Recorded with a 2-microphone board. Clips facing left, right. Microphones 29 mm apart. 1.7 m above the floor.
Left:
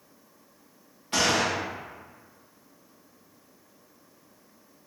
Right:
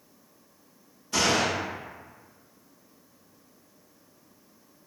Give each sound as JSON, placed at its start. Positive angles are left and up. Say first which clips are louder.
{"t": 1.1, "sound": "a gunshot", "louder": "even", "side_deg": 50, "distance_m": 1.3}